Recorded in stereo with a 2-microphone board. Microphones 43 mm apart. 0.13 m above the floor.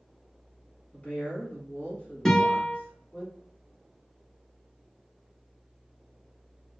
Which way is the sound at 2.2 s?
10° left (ahead or behind).